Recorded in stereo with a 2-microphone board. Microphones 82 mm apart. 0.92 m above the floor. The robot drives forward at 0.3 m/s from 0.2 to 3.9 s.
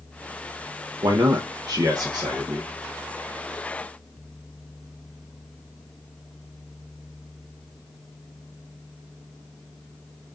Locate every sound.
1.0 s a man speaking: 60° right (ahead or behind), 0.6 m; by 2.8 s 45° right (ahead or behind), 0.8 m